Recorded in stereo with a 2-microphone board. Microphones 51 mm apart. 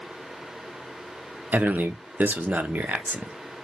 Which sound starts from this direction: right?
A man speaking, at 1.5 s.